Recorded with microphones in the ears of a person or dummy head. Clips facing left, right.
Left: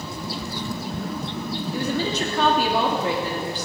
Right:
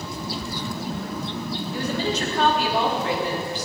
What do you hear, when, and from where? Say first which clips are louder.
1.7 s a woman speaking: left 1 dB; 80° left, 3 m; by 3.7 s 70° left (ahead or behind), 3.5 m